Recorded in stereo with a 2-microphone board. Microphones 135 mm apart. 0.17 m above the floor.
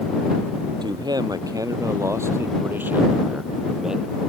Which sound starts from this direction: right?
A man speaking, at 0.8 s.